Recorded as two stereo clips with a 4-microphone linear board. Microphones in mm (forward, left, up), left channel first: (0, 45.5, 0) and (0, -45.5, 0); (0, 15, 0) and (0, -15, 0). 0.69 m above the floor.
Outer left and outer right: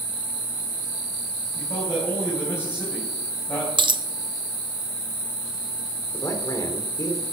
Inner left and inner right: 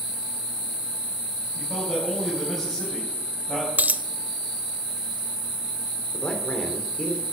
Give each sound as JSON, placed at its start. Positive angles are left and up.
{"t": 1.6, "sound": "a man speaking", "side_deg": 30, "distance_m": 4.0}
{"t": 3.8, "sound": "a dropped coin", "side_deg": -60, "distance_m": 0.6}
{"t": 6.1, "sound": "a man speaking", "side_deg": 35, "distance_m": 2.5}